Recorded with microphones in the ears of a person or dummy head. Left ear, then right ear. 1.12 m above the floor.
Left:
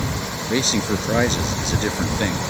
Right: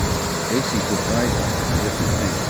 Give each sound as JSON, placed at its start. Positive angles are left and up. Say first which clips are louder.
{"t": 0.5, "sound": "a man speaking", "louder": "left 4 dB", "side_deg": 85}